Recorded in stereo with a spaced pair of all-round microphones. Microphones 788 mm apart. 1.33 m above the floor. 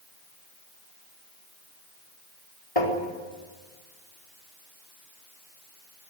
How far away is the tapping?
About 4 m.